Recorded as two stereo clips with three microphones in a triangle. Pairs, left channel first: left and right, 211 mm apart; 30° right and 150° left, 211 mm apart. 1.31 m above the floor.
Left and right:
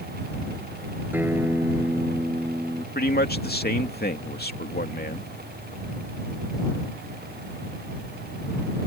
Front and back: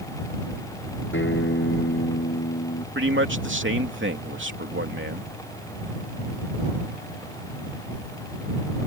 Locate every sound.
1.1 s a guitar: 10° right
3.0 s a man speaking: 130° left